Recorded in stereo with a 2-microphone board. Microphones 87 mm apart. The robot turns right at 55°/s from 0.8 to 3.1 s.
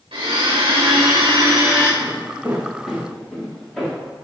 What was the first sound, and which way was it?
A blender, 90° right.